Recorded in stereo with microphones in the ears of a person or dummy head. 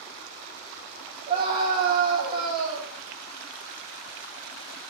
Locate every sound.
1.3 s a scream: 30° right (ahead or behind), 3.5 m